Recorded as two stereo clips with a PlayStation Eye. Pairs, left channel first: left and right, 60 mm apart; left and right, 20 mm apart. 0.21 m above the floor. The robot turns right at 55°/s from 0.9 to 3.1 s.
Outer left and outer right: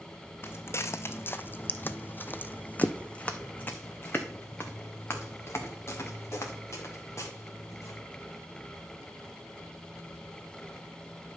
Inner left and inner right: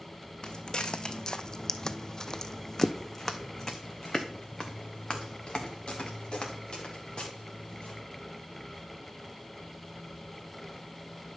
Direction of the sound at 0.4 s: 40° left (ahead or behind).